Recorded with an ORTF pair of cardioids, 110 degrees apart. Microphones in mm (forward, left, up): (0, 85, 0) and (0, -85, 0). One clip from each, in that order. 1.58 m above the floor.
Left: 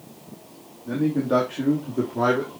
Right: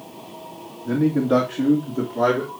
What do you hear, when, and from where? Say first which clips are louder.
0.8 s a man speaking: right 3 dB; 20° right, 2.5 m; by 2.5 s 5° left, 3 m